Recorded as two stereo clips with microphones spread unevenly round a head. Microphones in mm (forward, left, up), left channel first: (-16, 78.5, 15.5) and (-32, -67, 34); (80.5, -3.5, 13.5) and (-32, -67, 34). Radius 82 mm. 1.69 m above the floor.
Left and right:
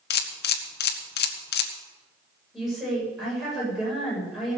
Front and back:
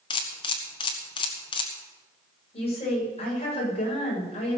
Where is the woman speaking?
10° right, 7.5 m.